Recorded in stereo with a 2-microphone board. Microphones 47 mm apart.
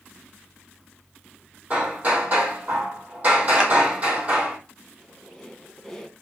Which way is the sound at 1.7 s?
35° right (ahead or behind).